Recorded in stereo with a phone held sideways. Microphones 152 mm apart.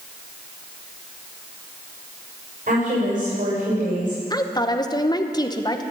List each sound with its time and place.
2.7 s a woman speaking: 60° right (ahead or behind), 6.5 m
4.3 s a woman speaking: 25° left (ahead or behind), 0.8 m